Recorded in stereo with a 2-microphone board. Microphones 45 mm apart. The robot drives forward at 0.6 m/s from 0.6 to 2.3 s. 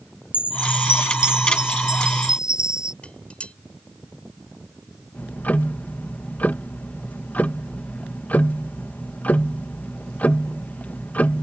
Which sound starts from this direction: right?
A chime, at 0.3 s.